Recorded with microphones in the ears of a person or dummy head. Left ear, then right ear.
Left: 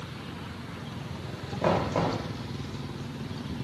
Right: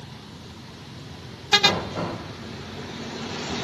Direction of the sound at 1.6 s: 45° left (ahead or behind).